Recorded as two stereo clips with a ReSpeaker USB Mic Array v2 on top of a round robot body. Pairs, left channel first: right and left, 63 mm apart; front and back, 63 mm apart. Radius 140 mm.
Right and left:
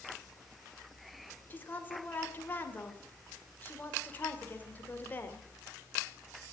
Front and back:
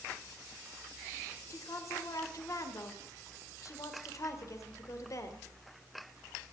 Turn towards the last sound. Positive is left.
turn(degrees=-30)